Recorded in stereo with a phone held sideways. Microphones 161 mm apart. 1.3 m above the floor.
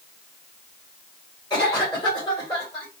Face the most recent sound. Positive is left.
turn(degrees=25)  # may be behind; listen again after turning